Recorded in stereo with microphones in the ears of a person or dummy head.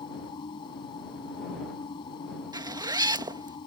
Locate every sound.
0.0 s a machine running: 30° left (ahead or behind)
2.5 s a zipper: 20° right (ahead or behind)